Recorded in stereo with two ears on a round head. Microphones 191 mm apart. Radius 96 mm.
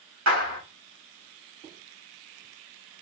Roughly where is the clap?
Right.